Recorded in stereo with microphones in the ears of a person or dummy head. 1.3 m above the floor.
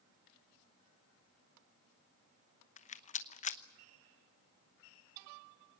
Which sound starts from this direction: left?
A rattle, at 2.8 s.